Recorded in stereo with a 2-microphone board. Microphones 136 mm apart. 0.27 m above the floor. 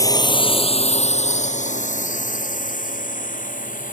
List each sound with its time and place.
0.0 s a drone: 25° left (ahead or behind); by 3.9 s 75° left (ahead or behind)